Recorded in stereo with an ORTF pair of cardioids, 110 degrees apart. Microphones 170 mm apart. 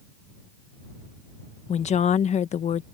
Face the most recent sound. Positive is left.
turn(degrees=45)